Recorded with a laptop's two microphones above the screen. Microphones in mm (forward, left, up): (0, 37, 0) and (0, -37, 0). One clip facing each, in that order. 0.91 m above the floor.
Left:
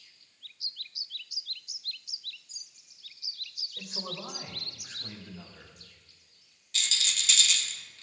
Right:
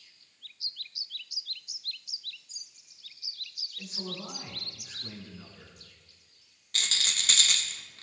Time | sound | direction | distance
3.8 | a man speaking | 80° left | 3 m
6.7 | a rattle | 50° right (ahead or behind) | 1.2 m